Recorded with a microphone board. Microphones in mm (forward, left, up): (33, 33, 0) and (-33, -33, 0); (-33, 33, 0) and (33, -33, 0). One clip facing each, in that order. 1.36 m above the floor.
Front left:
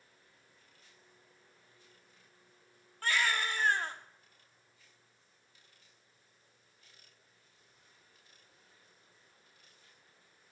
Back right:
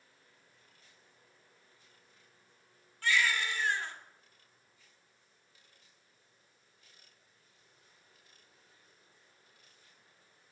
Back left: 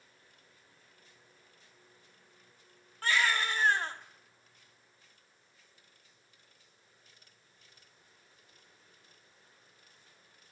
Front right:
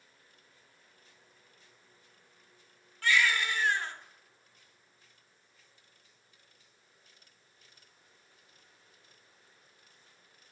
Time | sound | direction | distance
3.0 | a baby crying | 85° left | 1.5 m